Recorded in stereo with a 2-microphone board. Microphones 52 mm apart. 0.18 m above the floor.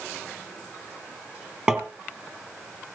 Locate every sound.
1.7 s tapping: 25° right (ahead or behind), 1.6 m